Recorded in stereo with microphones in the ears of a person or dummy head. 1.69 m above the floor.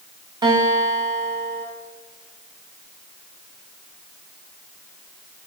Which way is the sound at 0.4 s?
20° right (ahead or behind).